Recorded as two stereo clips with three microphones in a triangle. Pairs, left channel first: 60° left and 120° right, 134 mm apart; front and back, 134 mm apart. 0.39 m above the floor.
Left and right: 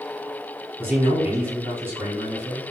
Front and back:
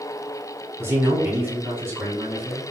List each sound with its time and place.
0.8 s a man speaking: 155° right, 1.3 m